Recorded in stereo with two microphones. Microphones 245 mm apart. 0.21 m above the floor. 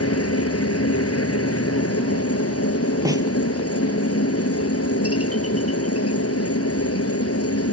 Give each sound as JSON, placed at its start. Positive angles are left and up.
{"t": 0.0, "sound": "a helicopter", "side_deg": 70}
{"t": 3.0, "sound": "a snare drum", "side_deg": -15}